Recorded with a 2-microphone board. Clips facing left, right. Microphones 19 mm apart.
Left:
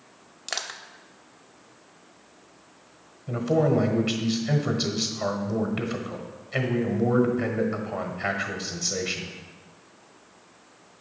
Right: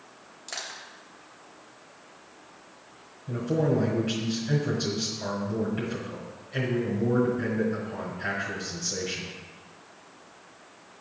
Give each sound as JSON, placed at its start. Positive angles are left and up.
{"t": 0.5, "sound": "crushing", "side_deg": 40, "distance_m": 0.6}
{"t": 3.3, "sound": "a man speaking", "side_deg": 50, "distance_m": 1.4}